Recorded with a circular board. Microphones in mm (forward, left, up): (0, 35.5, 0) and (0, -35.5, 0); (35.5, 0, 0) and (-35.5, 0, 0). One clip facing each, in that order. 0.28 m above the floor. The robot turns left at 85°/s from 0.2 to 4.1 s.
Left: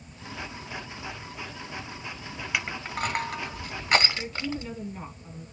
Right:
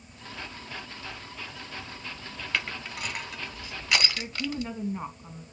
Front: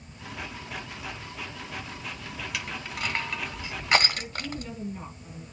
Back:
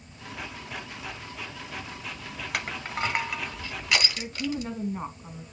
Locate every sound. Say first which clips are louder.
2.5 s crushing: left 2 dB, back 6 dB; 165° left, 1.9 m; by 4.7 s 30° left, 1.9 m
4.2 s a woman speaking: even, back 4 dB; 140° right, 2.5 m